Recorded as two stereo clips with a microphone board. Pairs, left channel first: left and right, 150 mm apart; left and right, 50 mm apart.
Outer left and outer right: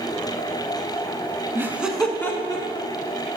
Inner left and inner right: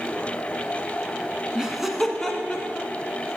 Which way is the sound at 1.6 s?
15° right (ahead or behind).